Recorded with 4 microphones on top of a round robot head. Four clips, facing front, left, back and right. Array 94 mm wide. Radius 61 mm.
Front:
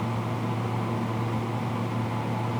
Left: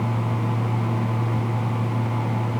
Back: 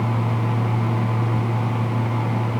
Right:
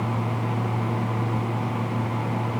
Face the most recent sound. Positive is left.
No sound to turn to.